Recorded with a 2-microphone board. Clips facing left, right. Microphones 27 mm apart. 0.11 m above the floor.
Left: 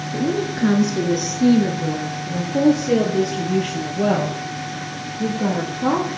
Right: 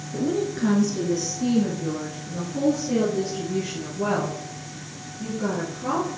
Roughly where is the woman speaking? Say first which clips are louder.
Left 2 dB; centre.